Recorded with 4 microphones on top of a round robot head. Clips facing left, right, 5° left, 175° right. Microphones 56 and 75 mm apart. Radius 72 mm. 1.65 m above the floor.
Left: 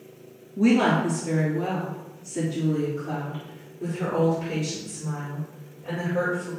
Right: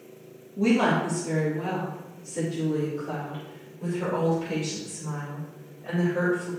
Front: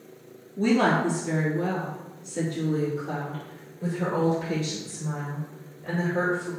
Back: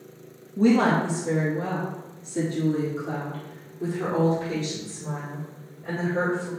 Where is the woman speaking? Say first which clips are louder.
Left 2 dB, back 2 dB; 155° left, 2 m; by 6.5 s 160° left, 6 m.